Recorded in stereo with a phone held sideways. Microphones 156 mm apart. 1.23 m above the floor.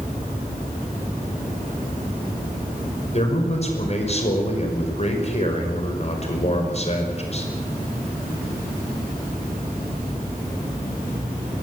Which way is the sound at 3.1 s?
45° left (ahead or behind).